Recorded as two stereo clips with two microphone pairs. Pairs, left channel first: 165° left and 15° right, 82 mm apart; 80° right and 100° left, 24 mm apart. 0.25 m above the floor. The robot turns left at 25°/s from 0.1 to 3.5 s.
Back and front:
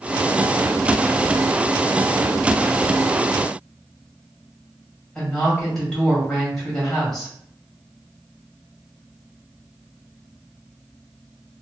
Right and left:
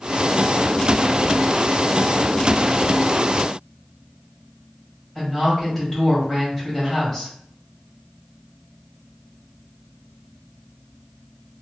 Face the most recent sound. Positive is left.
turn(degrees=-120)